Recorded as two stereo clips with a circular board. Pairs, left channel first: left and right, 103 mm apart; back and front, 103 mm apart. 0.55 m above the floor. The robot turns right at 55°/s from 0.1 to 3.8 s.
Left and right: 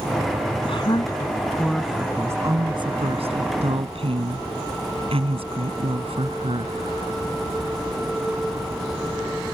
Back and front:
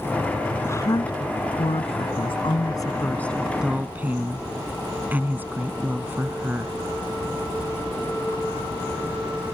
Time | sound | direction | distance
0.6 | a woman speaking | 115° left | ?